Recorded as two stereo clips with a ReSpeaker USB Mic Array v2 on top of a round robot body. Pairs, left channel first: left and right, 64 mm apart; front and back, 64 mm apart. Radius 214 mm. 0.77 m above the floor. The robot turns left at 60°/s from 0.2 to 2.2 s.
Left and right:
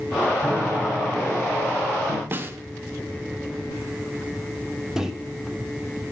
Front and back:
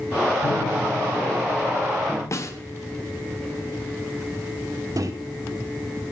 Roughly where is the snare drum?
Ahead right.